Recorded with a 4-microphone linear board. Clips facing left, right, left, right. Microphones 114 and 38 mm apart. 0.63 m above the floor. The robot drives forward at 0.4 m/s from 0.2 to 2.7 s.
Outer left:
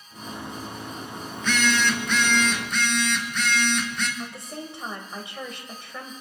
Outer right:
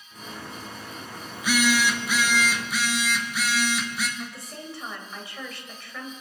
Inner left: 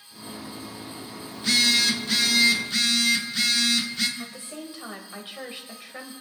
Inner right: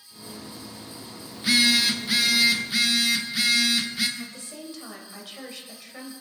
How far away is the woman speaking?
About 2.5 m.